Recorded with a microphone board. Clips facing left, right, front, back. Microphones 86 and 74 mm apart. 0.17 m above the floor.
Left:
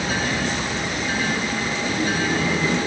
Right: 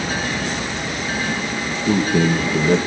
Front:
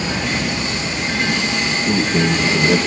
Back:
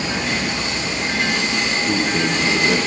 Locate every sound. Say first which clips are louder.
1.7 s a man speaking: right 8 dB, front 3 dB; 95° right, 3 m